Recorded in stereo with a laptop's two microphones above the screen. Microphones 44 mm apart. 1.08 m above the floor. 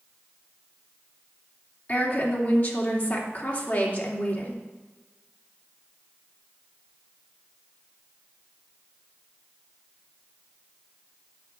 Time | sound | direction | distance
1.9 | a woman speaking | 40° left (ahead or behind) | 2.5 m